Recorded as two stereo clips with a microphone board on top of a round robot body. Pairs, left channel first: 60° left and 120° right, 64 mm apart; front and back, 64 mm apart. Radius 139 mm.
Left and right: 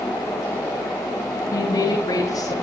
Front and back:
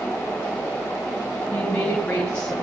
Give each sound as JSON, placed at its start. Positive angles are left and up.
{"t": 1.5, "sound": "a woman speaking", "azimuth_deg": 75, "distance_m": 4.5}